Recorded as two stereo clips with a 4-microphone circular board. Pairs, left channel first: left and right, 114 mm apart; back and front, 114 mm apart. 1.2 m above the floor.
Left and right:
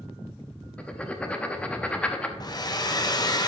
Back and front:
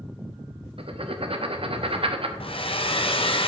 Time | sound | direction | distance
0.8 | writing | 15° left | 0.8 m
2.4 | a hair dryer | 145° left | 0.7 m